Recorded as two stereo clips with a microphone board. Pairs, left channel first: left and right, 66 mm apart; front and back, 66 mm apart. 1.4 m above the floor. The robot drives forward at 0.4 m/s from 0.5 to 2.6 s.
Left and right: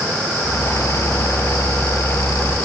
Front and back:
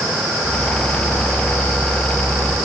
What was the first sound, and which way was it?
Only background noise.